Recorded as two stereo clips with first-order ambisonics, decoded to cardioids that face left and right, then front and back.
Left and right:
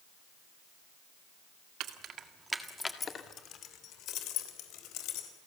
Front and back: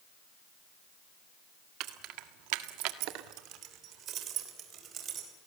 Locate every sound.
1.8 s keys jangling: 135° right, 1.9 m; by 5.3 s 120° left, 4.5 m